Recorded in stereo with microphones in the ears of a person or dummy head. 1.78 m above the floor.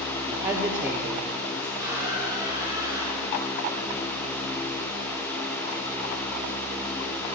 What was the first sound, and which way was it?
A woman speaking, 15° right (ahead or behind).